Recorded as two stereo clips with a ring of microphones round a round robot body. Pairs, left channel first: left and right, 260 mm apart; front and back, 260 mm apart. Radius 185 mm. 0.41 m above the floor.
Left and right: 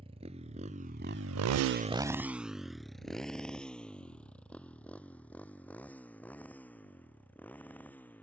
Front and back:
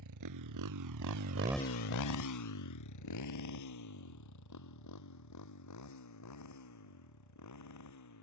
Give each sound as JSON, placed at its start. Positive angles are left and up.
{"t": 0.0, "sound": "a motorcycle", "azimuth_deg": -165}